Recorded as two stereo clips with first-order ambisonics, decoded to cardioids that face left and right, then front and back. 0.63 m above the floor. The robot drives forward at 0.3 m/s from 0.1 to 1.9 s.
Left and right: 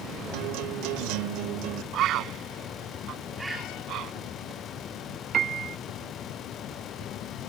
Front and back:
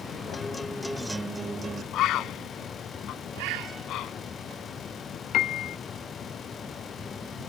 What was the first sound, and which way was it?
A guitar, 70° right.